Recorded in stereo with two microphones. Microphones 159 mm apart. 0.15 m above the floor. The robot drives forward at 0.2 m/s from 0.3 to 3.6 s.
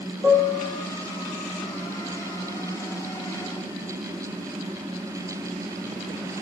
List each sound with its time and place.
0.2 s a piano: 20° right (ahead or behind), 1.9 m